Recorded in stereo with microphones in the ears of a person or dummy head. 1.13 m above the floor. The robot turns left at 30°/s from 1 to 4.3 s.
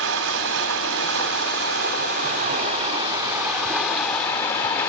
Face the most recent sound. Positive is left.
turn(degrees=170)